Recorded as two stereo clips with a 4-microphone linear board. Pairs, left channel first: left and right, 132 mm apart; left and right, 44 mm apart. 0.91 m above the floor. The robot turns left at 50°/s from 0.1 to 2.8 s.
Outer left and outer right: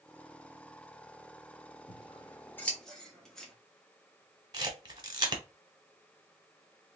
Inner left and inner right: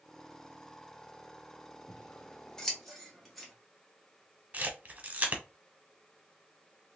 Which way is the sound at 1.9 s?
45° left (ahead or behind).